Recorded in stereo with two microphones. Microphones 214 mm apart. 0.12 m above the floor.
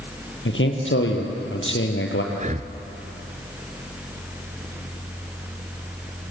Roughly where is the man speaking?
Left.